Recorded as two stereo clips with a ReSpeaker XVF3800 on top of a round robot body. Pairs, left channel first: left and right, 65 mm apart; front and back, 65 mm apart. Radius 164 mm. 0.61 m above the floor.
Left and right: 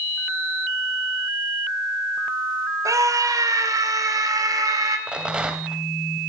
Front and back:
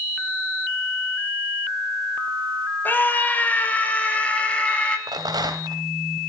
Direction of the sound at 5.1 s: 165° right.